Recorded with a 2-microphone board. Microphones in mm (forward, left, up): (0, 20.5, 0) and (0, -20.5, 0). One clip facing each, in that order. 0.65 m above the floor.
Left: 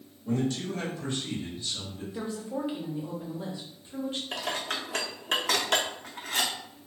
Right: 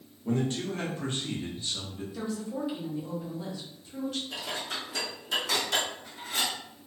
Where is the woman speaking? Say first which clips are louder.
Even; 25° left (ahead or behind), 0.9 m.